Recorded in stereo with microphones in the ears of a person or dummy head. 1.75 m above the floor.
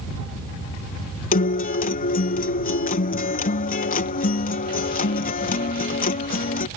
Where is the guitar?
40° left (ahead or behind).